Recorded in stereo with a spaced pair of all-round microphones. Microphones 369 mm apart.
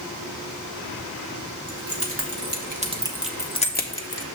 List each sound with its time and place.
1.7 s keys jangling: 40° right (ahead or behind), 1.5 m; by 4.2 s 45° left (ahead or behind), 0.8 m